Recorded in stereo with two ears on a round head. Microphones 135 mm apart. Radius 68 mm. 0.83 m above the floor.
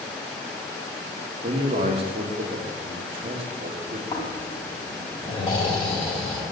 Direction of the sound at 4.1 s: 25° left (ahead or behind).